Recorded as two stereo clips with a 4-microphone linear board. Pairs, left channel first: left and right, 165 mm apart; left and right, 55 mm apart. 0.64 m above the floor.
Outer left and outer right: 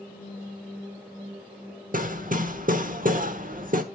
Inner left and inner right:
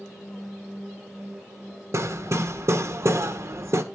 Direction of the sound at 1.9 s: 55° right (ahead or behind).